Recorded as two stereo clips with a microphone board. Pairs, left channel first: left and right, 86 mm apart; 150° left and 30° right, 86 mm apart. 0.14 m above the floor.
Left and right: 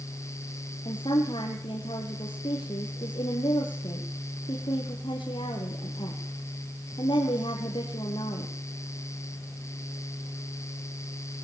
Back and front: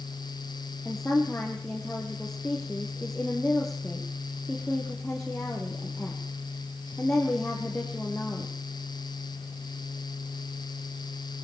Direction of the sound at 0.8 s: 70° left.